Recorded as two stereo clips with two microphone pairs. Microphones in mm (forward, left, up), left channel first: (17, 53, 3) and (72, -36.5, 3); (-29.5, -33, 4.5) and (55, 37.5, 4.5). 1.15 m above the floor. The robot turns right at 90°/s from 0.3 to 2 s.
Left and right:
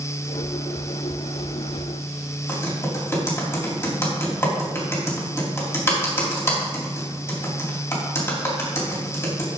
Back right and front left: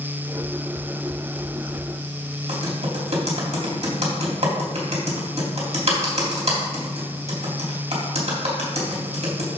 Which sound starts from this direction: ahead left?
Typing on a keyboard, at 2.5 s.